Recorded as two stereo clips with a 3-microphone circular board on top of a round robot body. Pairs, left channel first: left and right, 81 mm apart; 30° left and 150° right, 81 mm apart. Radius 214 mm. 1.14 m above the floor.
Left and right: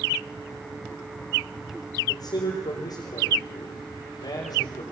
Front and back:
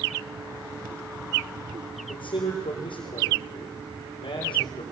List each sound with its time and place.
2.1 s a man speaking: 55° left, 4 m